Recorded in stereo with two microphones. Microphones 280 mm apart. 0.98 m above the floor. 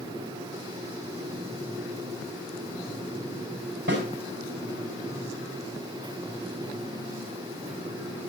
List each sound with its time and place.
3.9 s a snare drum: 40° right (ahead or behind), 6.5 m